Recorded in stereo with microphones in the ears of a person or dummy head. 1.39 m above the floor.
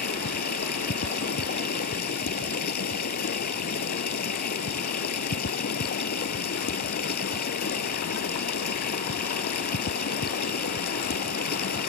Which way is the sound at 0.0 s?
60° left (ahead or behind).